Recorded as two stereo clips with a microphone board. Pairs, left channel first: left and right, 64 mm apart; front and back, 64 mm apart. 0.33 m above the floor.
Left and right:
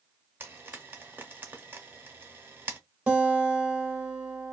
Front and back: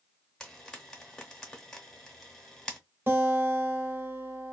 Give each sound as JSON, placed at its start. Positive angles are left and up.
{"t": 0.4, "sound": "frying", "azimuth_deg": -65, "distance_m": 0.8}
{"t": 3.1, "sound": "a guitar", "azimuth_deg": -150, "distance_m": 1.0}